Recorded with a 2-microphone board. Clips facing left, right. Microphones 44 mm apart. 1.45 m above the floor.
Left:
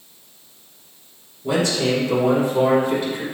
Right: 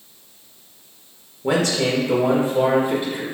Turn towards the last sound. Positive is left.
turn(degrees=-20)  # may be behind; listen again after turning